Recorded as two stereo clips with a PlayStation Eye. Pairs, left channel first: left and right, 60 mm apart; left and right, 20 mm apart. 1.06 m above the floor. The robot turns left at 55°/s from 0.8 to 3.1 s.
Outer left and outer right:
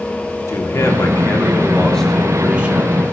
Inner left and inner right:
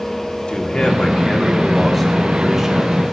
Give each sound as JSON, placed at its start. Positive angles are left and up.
{"t": 0.5, "sound": "a man speaking", "azimuth_deg": 75, "distance_m": 1.4}